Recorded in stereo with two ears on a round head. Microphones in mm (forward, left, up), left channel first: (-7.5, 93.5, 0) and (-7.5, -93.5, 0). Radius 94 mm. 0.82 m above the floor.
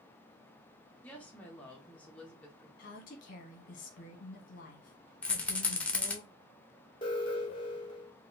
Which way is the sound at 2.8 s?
40° left (ahead or behind).